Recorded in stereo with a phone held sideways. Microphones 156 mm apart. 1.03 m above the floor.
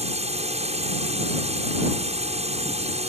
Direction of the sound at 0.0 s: 45° right (ahead or behind).